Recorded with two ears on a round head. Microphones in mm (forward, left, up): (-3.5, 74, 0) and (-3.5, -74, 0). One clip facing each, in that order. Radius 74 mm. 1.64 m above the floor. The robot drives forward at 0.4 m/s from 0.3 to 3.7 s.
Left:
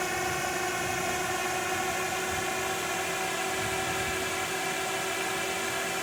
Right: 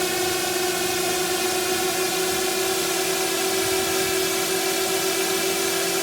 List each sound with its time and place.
0.0 s a drone: 45° right (ahead or behind); by 6.0 s 55° right (ahead or behind)